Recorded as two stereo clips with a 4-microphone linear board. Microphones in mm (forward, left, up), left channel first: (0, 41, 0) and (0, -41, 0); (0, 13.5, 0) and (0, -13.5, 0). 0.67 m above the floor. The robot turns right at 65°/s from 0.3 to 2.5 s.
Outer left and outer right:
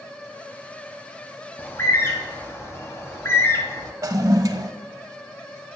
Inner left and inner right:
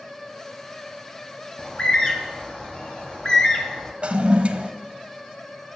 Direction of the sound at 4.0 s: 45° right (ahead or behind).